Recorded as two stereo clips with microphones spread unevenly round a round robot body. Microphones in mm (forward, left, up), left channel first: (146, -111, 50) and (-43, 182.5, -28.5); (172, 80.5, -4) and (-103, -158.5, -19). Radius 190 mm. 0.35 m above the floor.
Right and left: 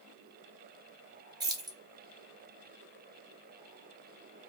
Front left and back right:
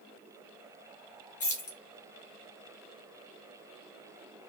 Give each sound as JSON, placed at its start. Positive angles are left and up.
{"t": 1.4, "sound": "keys jangling", "azimuth_deg": 90, "distance_m": 0.7}